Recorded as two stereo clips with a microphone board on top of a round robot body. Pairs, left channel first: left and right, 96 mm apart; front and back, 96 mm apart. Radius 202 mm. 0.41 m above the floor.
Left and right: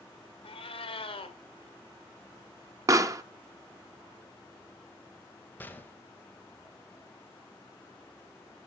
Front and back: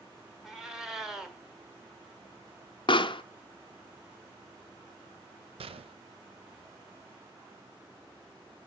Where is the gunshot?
165° left, 0.7 m.